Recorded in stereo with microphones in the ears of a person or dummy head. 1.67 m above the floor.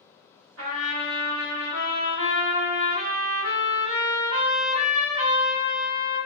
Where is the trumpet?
70° right (ahead or behind), 1.2 m.